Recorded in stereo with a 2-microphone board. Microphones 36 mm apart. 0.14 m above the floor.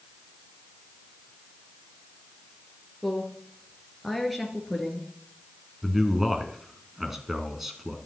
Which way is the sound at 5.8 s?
10° right (ahead or behind).